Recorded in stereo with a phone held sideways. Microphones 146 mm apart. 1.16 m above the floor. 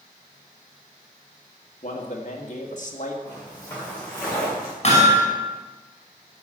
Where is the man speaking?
60° left (ahead or behind), 2 m.